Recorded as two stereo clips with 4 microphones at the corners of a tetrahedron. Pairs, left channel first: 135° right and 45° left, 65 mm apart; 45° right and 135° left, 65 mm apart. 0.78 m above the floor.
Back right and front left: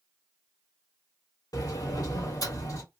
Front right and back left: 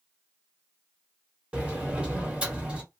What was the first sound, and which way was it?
A sliding door, 155° right.